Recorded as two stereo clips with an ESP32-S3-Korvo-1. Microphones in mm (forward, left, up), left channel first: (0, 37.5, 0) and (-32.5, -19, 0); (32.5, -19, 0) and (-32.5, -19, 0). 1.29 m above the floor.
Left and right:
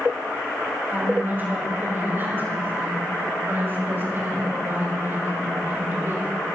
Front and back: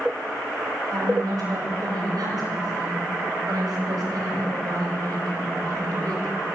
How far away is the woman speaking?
About 8.5 m.